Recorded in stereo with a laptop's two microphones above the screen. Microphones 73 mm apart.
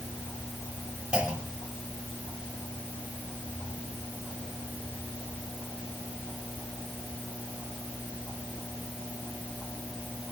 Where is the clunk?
10° right (ahead or behind), 4.5 m.